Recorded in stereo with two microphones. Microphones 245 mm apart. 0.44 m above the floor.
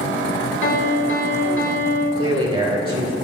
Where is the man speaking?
25° right (ahead or behind), 1.8 m.